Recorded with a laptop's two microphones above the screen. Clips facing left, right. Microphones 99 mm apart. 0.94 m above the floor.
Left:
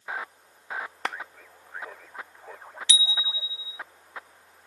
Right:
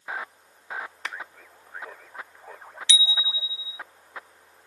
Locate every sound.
1.1 s a clap: 65° left (ahead or behind)
2.9 s a bicycle bell: 40° left (ahead or behind)